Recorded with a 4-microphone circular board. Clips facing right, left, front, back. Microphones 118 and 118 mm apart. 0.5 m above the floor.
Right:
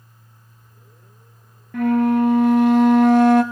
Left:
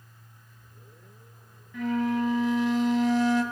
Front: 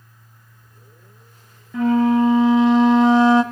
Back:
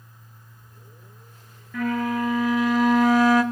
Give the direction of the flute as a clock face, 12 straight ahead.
2 o'clock.